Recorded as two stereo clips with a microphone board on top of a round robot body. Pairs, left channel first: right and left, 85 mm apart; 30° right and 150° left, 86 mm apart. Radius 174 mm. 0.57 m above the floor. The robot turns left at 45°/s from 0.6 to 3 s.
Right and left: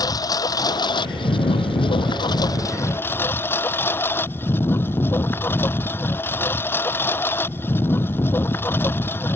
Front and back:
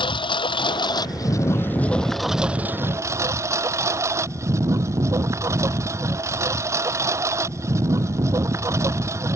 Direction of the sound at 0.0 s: 45° right.